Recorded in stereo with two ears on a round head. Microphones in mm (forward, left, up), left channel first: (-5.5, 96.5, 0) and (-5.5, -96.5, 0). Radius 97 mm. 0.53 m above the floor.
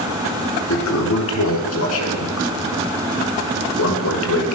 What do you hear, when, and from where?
0.7 s a toilet flushing: 75° left (ahead or behind), 4 m